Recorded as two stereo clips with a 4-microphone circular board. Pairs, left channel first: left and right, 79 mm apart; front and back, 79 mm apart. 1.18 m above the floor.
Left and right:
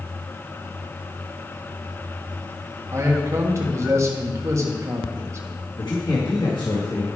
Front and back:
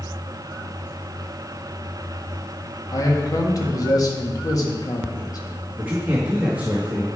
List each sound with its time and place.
2.9 s a man speaking: 35° right, 1.7 m
5.8 s a man speaking: 110° left, 1.8 m